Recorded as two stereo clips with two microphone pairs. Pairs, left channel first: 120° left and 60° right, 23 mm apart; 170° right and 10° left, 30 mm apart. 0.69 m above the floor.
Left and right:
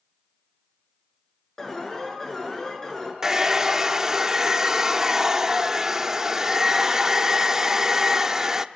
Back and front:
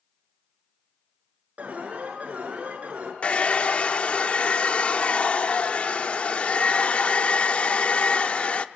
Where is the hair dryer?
130° right, 0.8 m.